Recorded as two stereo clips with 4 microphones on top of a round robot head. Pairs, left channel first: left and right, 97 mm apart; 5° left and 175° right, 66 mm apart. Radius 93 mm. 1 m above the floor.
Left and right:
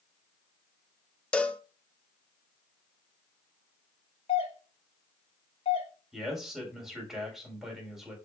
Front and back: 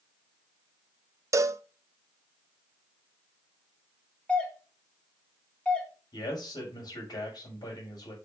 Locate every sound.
1.3 s a cowbell: 165° left, 0.8 m
4.3 s a doorbell: 75° left, 3 m
6.1 s a man speaking: 5° right, 5 m